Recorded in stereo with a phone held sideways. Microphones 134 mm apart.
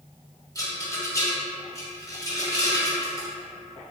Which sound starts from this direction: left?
A rattle, at 0.6 s.